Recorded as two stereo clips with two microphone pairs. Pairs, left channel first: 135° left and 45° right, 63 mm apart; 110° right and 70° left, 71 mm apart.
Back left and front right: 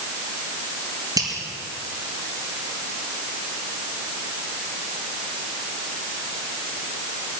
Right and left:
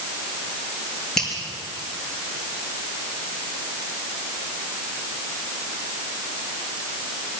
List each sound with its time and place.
1.2 s a finger snap: 30° right, 5.5 m